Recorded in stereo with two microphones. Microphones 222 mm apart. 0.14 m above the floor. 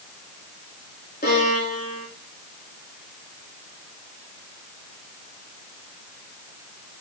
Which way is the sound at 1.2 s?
45° left (ahead or behind).